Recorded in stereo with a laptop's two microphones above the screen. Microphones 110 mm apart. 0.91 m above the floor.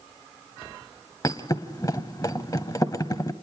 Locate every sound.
1.2 s a thud: 35° left (ahead or behind), 0.8 m